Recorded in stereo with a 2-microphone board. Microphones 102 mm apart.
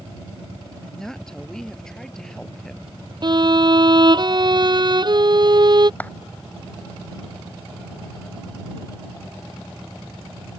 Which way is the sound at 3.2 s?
50° right (ahead or behind).